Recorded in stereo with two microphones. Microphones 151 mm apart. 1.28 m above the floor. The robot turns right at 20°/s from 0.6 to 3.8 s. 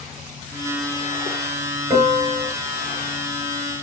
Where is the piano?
25° right (ahead or behind), 3 m; by 2.5 s 35° right (ahead or behind), 3 m.